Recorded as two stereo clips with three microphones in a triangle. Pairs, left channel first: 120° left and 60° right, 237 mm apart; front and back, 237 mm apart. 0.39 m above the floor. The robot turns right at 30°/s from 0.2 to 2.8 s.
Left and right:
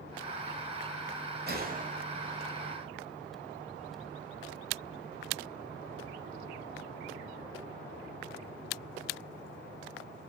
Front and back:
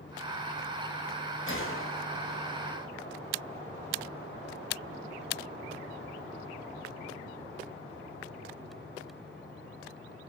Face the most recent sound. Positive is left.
turn(degrees=20)